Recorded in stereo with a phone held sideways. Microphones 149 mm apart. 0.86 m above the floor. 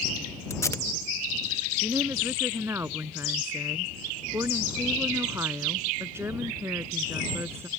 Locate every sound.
0.5 s tape being pulled: 20° left (ahead or behind)
1.8 s a woman speaking: 15° right (ahead or behind)